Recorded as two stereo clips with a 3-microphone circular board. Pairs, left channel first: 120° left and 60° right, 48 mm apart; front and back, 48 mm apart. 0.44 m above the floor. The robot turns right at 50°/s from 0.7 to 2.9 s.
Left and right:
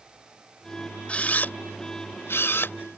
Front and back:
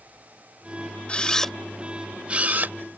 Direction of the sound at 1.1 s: 60° left.